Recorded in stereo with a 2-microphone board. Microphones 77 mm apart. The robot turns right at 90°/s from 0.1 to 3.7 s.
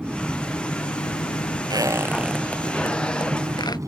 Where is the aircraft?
15° right; by 3.9 s 50° right.